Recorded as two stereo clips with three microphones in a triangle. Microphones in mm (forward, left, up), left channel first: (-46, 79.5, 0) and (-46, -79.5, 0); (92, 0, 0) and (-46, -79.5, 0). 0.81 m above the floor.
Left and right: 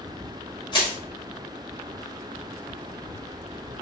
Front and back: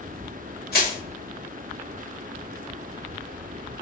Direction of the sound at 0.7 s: 30° left.